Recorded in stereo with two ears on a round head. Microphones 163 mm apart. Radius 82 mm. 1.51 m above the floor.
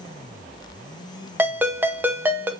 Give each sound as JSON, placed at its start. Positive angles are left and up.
{"t": 1.4, "sound": "a ringtone", "side_deg": -10, "distance_m": 0.6}